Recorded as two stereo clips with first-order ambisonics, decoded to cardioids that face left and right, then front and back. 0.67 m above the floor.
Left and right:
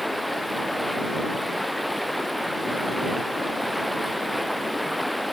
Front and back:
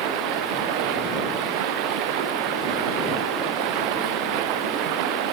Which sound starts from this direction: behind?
Running water, at 0.0 s.